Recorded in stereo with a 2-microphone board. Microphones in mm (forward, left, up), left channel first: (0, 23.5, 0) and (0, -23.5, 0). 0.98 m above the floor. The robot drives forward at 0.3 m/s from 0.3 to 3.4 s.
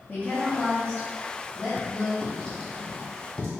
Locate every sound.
0.1 s a woman speaking: 40° left (ahead or behind), 0.9 m; by 2.1 s 30° left (ahead or behind), 1.1 m
2.2 s writing: 20° left (ahead or behind), 1.6 m; by 3.5 s 25° left (ahead or behind), 1.3 m